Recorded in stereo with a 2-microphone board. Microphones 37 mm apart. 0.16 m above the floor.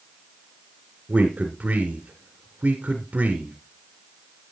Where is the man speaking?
40° right (ahead or behind), 1.8 m.